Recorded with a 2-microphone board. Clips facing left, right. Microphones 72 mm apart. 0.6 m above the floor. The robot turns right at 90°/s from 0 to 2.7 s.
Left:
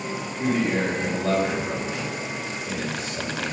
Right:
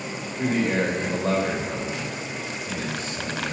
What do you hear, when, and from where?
0.4 s a man speaking: 110° right, 2.5 m; by 3.5 s 100° left, 2.5 m